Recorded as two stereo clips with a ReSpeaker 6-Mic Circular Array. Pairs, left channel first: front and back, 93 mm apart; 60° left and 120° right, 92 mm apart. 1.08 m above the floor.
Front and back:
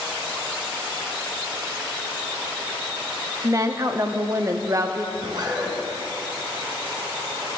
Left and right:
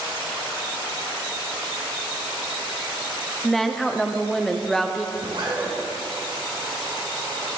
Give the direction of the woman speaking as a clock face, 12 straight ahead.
7 o'clock.